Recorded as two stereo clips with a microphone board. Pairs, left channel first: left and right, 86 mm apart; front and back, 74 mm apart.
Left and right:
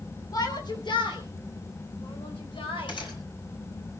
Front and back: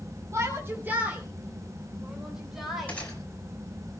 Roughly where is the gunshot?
Left.